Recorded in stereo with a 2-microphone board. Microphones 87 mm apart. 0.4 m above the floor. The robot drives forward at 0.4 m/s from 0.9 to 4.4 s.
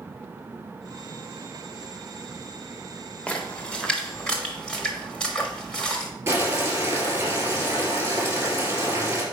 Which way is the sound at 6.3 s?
30° right (ahead or behind).